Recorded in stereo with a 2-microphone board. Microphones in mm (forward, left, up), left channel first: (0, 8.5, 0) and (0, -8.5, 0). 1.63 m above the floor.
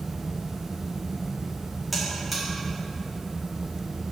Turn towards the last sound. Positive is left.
turn(degrees=0)  # may be behind; listen again after turning